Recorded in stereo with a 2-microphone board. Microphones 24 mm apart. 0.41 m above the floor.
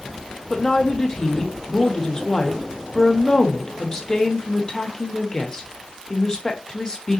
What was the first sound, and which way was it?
A woman speaking, 25° left (ahead or behind).